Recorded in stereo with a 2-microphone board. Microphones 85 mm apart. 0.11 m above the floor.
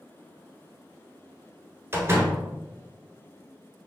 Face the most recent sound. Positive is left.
turn(degrees=-30)  # may be behind; listen again after turning